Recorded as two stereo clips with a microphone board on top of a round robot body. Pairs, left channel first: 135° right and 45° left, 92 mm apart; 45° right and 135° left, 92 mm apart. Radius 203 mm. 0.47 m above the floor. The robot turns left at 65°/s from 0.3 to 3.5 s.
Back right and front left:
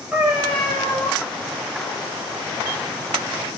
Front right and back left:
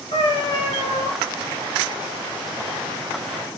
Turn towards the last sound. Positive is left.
turn(degrees=125)